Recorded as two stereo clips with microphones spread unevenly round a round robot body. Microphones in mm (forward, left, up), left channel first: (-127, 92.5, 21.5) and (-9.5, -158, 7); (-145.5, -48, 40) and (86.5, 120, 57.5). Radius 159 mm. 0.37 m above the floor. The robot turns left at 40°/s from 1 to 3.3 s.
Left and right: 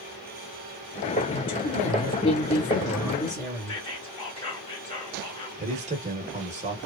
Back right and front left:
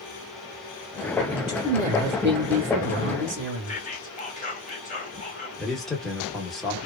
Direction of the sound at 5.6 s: 65° right.